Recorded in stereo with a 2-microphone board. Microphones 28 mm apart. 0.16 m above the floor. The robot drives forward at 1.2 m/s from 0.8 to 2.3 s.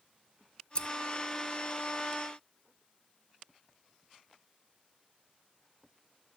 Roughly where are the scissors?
Left.